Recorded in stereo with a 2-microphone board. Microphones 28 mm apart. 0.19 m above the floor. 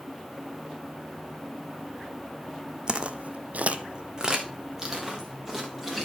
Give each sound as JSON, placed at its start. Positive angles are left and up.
{"t": 2.9, "sound": "footsteps", "side_deg": -30, "distance_m": 0.8}